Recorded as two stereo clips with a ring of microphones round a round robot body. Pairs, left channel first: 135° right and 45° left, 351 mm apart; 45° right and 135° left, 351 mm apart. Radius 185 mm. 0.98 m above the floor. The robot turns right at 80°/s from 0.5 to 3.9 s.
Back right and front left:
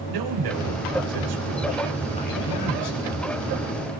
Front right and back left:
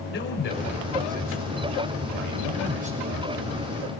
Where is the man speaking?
15° left, 5 m; by 3.0 s 145° right, 5 m.